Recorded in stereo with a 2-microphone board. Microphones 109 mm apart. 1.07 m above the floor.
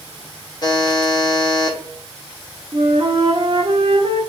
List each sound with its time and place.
0.6 s a buzzer: 40° left (ahead or behind), 0.9 m
2.7 s a flute: 45° right (ahead or behind), 0.7 m